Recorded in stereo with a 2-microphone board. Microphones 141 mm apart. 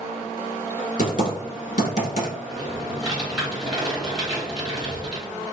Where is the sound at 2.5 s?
Centre (ahead or behind), 1.4 m.